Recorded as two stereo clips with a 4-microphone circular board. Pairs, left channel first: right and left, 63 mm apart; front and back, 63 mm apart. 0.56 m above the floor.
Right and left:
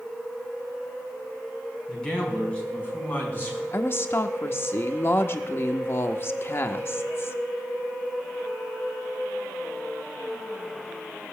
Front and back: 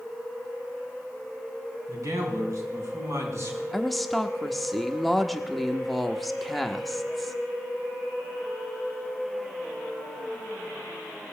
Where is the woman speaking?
90° right, 0.8 m.